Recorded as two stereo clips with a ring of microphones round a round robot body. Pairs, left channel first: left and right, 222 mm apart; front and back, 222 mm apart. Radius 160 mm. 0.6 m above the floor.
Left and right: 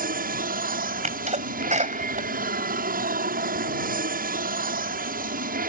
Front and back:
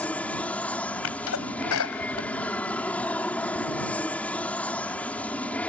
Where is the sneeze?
30° right.